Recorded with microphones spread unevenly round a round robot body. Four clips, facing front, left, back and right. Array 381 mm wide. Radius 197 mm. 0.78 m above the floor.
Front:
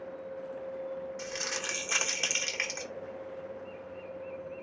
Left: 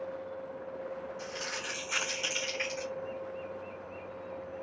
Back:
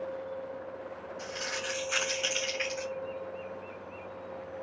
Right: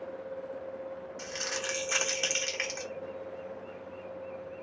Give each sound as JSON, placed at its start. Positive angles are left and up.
{"t": 1.2, "sound": "crumpling", "azimuth_deg": -50, "distance_m": 0.8}